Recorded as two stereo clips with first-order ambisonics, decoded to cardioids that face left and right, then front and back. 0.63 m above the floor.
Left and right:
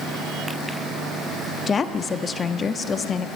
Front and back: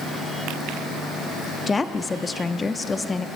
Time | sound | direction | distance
1.7 | a woman speaking | 60° left | 0.7 m